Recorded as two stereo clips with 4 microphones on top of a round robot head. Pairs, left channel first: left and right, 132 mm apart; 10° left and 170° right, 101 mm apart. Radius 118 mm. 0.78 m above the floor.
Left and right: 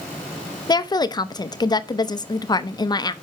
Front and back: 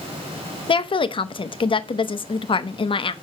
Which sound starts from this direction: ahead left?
A woman speaking, at 0.7 s.